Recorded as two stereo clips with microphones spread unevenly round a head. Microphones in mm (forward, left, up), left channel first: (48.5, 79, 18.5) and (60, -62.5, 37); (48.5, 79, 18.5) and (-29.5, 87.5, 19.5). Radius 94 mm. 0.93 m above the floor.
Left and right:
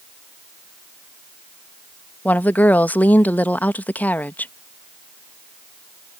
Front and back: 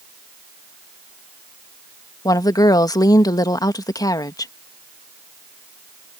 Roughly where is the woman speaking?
Ahead.